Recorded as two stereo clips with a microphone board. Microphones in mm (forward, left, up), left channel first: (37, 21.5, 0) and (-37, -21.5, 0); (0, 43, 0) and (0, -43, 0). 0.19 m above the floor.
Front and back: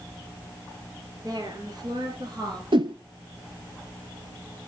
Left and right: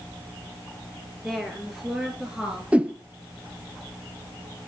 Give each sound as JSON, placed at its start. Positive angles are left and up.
{"t": 1.2, "sound": "a woman speaking", "azimuth_deg": 175, "distance_m": 3.0}
{"t": 2.7, "sound": "a whoosh", "azimuth_deg": -165, "distance_m": 0.7}